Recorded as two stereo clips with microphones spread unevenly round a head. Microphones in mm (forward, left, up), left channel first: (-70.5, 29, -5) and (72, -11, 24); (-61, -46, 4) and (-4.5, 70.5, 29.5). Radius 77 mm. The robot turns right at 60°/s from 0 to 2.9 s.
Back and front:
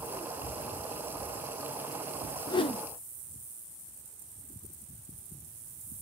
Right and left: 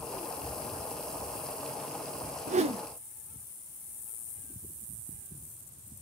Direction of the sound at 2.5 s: 95° left.